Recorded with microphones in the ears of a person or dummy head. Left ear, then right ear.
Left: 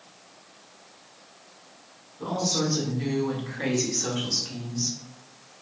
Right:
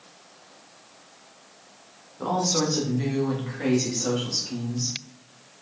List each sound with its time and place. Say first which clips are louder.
2.2 s a woman speaking: right 3 dB; 50° right (ahead or behind), 1.0 m; by 5.0 s 50° left (ahead or behind), 1.4 m